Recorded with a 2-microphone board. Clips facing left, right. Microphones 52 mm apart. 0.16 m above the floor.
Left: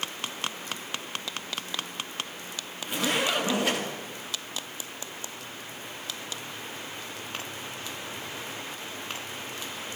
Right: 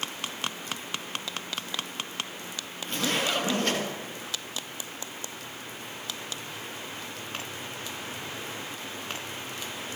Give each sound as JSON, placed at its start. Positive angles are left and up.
{"t": 2.8, "sound": "a zipper", "side_deg": 10, "distance_m": 3.5}